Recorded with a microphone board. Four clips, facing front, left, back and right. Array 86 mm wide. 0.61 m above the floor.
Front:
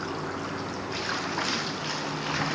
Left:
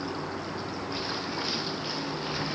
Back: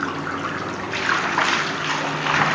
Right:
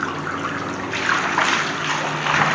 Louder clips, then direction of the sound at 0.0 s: Right 9 dB, back 7 dB; 125° right.